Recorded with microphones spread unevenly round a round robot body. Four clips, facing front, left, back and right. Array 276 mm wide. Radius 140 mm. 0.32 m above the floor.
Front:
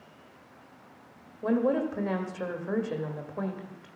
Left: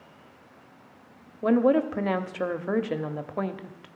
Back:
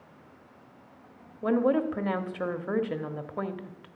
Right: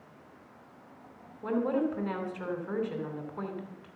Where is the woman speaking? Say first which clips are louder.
Left 8 dB, back 1 dB; 130° left, 1.2 m.